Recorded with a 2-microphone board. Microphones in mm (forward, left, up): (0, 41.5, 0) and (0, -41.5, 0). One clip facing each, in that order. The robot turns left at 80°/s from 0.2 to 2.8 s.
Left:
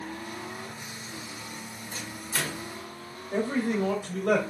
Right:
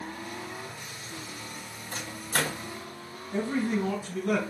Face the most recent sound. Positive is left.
turn(degrees=65)  # may be behind; listen again after turning